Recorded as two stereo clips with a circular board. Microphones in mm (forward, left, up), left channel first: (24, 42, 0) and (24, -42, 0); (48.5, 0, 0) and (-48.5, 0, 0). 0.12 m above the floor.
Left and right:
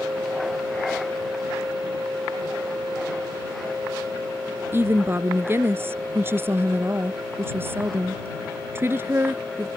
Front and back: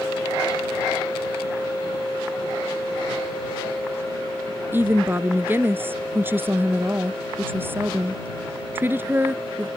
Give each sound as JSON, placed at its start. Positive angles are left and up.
{"t": 4.7, "sound": "a woman speaking", "azimuth_deg": -130}